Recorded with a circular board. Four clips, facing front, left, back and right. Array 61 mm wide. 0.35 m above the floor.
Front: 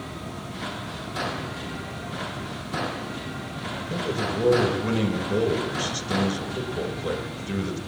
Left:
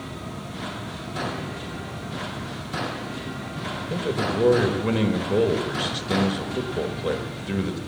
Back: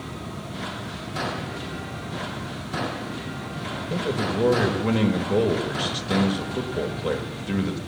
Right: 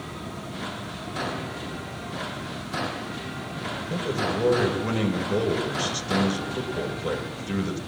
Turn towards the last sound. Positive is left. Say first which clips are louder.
# left 2 dB, back 2 dB
turn(degrees=130)